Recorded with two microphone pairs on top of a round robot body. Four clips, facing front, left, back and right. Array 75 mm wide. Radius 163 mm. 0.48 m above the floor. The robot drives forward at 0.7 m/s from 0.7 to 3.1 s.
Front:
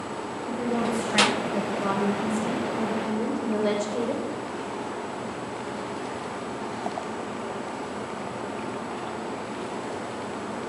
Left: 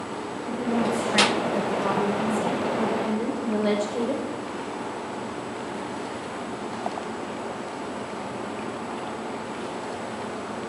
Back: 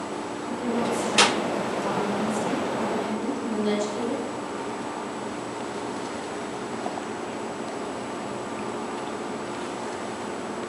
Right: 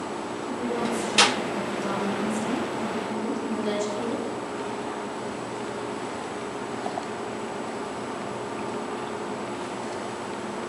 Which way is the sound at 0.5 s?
30° left.